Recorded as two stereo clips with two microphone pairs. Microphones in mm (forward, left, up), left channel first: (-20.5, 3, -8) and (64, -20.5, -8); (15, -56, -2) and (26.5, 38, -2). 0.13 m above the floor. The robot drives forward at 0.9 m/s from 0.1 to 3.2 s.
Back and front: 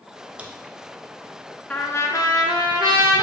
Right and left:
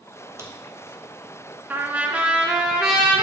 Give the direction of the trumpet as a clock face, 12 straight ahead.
8 o'clock.